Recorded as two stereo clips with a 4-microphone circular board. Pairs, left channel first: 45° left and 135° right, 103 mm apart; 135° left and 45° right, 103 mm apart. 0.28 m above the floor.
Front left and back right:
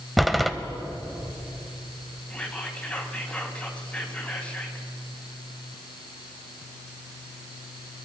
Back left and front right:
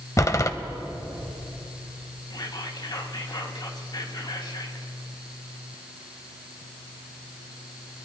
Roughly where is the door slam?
Behind left.